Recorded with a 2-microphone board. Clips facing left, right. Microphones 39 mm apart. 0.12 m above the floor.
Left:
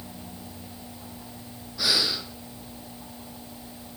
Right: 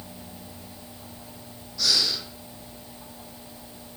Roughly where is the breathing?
Left.